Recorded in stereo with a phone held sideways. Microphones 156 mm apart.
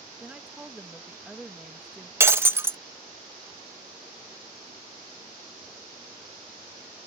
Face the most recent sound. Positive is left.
turn(degrees=-15)  # may be behind; listen again after turning